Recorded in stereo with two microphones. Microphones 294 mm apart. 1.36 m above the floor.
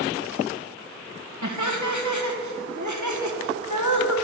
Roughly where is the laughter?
Right.